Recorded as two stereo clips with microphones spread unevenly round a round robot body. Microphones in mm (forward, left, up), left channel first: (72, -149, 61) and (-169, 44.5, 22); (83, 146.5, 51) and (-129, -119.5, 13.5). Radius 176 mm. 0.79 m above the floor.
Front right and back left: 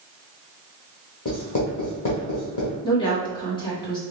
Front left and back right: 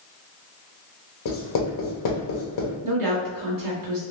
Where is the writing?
15° left, 1.0 m.